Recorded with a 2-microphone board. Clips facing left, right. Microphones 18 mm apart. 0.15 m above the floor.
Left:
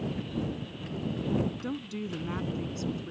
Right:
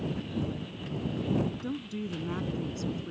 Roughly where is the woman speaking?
Centre.